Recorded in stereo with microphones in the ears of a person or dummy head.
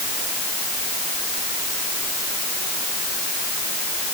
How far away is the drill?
No drill in this recording.